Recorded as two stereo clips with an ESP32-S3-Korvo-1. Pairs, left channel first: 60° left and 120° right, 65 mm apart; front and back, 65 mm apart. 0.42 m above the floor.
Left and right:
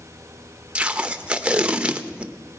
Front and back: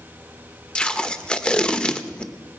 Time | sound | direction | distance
0.8 | tape being pulled | 65° right | 0.7 m